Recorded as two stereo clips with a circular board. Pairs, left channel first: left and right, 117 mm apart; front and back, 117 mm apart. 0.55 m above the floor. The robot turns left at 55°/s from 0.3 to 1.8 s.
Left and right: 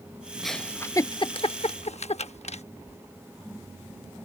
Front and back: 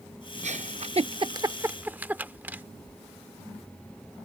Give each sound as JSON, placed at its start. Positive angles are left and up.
{"t": 0.4, "sound": "a giggle", "azimuth_deg": 180}